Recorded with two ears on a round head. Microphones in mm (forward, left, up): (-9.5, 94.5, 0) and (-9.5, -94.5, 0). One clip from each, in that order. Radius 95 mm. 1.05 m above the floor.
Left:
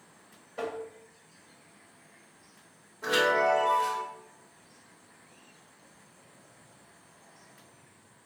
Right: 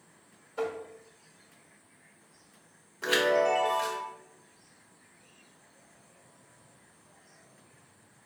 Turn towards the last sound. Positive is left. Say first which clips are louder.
# even
turn(degrees=-85)